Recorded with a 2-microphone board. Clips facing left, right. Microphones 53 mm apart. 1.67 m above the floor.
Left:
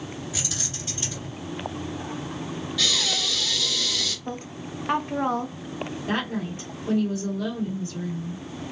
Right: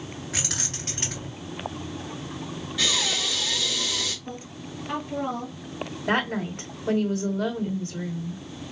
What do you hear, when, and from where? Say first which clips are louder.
0.3 s keys jangling: right 1 dB; 65° right (ahead or behind), 1.6 m
2.8 s breathing: right 1 dB; 30° right (ahead or behind), 1.5 m
4.2 s a woman speaking: left 3 dB; 55° left (ahead or behind), 1.0 m
6.1 s a woman speaking: right 4 dB; 65° right (ahead or behind), 1.7 m